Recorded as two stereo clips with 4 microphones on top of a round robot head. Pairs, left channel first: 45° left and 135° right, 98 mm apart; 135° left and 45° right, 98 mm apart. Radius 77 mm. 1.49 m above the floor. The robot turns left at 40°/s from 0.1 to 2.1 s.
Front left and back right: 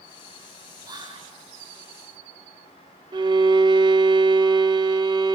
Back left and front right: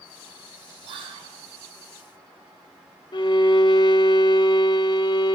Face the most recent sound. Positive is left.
turn(degrees=180)